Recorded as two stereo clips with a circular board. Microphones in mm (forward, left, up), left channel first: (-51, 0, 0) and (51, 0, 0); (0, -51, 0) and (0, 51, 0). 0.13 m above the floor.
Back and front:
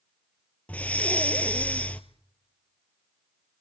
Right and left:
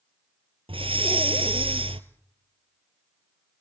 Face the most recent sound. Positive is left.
turn(degrees=105)